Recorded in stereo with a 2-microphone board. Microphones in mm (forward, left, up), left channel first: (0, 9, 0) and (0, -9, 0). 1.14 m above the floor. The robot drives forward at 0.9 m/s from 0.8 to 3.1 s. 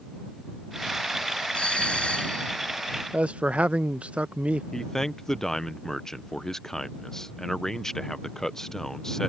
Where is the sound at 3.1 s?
80° right.